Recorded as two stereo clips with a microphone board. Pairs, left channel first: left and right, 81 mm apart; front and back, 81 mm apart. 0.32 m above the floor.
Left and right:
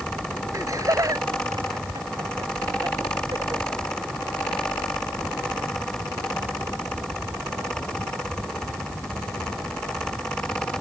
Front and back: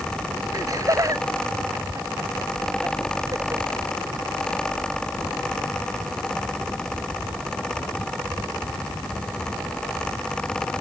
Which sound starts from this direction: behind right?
Laughter, at 0.5 s.